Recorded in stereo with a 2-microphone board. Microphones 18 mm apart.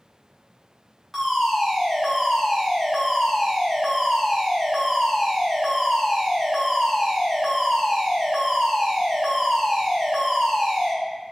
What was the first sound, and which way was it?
A fire alarm, centre (ahead or behind).